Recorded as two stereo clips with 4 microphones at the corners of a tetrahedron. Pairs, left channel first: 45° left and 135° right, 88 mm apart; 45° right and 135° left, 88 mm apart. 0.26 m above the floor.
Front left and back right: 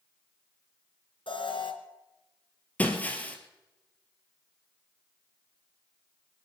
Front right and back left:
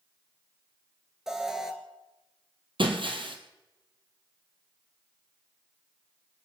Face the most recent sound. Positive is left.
turn(degrees=120)